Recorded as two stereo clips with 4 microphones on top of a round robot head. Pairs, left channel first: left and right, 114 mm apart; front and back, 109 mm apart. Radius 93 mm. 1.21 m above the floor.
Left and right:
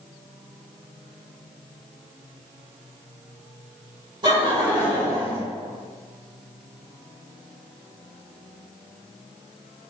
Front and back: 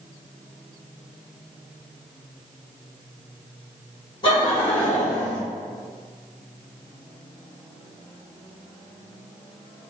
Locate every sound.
4.2 s laughter: 45° right, 1.3 m; by 5.4 s 50° right, 1.8 m